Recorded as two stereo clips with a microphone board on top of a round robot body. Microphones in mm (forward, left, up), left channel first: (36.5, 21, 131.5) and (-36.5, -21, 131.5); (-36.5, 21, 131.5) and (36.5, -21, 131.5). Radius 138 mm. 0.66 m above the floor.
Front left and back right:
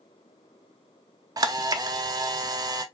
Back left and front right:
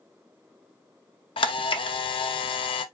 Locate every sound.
1.4 s a camera shutter: 165° left, 0.5 m